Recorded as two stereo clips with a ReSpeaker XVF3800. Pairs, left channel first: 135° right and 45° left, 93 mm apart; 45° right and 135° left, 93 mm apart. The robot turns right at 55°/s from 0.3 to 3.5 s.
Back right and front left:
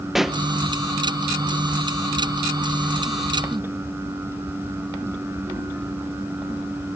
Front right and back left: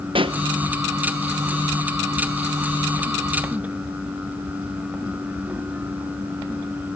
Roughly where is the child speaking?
I don't hear a child speaking.